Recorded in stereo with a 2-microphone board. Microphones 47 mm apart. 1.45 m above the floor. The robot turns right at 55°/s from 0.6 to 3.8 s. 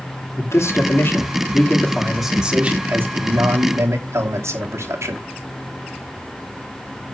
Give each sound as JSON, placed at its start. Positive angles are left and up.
{"t": 0.4, "sound": "a man speaking", "azimuth_deg": 95, "distance_m": 3.0}